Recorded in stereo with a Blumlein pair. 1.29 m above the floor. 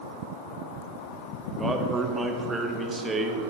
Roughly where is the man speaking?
Ahead.